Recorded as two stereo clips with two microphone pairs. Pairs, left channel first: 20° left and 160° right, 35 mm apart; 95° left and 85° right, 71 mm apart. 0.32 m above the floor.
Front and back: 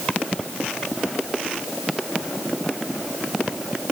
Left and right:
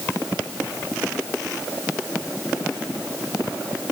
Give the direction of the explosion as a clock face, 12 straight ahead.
I don't hear an explosion.